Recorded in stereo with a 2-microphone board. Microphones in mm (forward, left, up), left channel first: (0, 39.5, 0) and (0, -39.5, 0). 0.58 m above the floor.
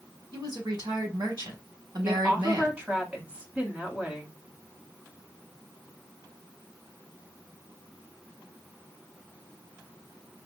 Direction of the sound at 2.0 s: 15° right (ahead or behind).